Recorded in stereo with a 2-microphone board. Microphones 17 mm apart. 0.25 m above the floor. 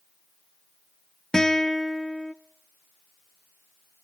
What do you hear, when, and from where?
1.3 s a guitar: 35° left (ahead or behind), 0.5 m